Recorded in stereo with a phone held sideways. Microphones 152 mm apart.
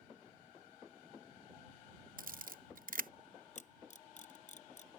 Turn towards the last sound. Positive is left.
turn(degrees=50)  # may be behind; listen again after turning